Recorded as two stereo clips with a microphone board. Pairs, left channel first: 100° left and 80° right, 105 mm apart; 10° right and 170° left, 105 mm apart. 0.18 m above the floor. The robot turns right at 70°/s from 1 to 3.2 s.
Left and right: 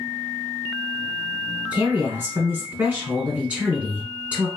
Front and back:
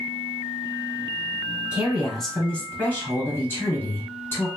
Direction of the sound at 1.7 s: 130° right.